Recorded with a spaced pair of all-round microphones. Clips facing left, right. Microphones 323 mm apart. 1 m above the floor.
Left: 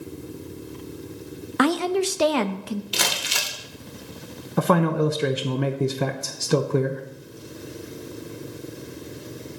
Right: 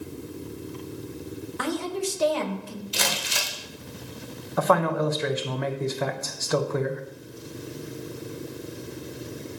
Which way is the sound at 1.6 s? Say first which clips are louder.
Left 8 dB; 75° left (ahead or behind).